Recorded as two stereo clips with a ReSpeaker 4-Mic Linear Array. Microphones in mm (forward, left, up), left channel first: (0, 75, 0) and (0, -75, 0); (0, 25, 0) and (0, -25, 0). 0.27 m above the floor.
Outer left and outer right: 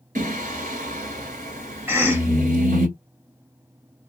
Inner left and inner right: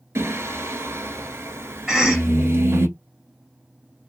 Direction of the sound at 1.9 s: 15° right (ahead or behind).